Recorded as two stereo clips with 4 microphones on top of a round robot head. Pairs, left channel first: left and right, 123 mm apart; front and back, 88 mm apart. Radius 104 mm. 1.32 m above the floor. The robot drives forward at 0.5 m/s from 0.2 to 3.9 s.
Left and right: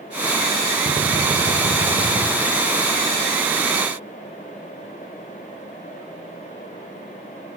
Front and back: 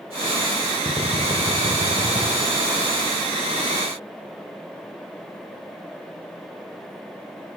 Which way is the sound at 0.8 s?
140° right.